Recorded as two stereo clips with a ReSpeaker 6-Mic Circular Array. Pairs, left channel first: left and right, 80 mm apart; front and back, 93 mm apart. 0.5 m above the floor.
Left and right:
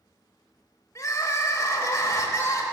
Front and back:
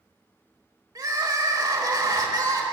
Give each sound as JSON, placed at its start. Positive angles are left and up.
{"t": 0.9, "sound": "crying", "azimuth_deg": 135, "distance_m": 1.2}